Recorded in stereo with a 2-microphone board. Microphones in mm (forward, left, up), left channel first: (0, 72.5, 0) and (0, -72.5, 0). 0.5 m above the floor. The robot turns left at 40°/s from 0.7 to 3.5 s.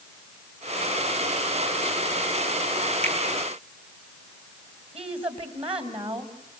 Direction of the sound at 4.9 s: 40° right (ahead or behind).